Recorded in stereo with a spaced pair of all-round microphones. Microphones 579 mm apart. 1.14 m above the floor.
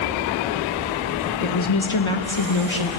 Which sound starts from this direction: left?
A woman speaking, at 1.4 s.